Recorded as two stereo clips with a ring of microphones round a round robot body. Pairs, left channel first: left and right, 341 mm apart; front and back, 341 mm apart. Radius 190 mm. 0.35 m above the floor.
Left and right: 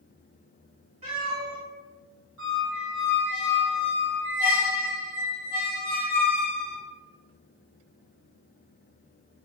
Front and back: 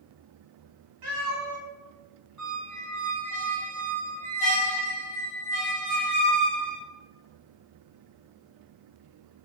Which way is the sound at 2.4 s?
145° left.